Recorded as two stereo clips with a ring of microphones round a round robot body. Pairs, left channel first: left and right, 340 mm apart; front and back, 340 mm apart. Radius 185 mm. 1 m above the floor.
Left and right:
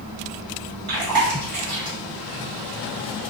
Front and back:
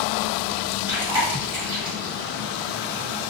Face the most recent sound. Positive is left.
turn(degrees=-95)